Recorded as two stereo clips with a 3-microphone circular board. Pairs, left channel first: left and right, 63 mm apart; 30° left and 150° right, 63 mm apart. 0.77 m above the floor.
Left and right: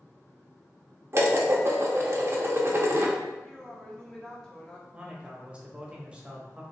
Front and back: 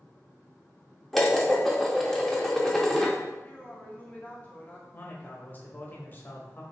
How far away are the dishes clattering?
About 0.6 m.